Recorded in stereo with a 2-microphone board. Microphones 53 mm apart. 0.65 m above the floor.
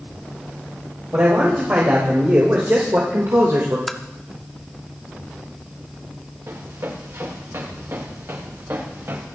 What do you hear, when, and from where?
1.1 s a man speaking: 35° right (ahead or behind), 4 m; by 3.8 s 55° right (ahead or behind), 2.5 m
3.9 s tapping: 5° left (ahead or behind), 0.9 m
6.5 s running footsteps: 60° right (ahead or behind), 8.5 m; by 9.3 s 45° right (ahead or behind), 8 m